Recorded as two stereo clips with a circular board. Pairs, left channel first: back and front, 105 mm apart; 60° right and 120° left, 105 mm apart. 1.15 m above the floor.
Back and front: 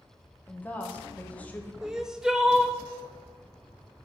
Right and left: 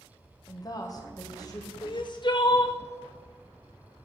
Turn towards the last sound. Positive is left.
turn(degrees=-85)